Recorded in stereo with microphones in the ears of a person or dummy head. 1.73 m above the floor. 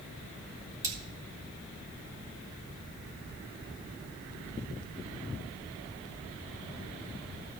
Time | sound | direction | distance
0.8 | cutlery clinking | 20° right (ahead or behind) | 2 m